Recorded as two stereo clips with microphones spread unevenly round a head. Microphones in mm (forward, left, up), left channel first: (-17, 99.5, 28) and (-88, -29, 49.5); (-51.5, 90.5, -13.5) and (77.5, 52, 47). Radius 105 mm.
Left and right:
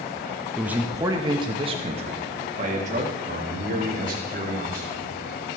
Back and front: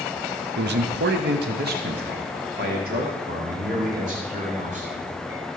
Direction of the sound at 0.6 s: 30° right.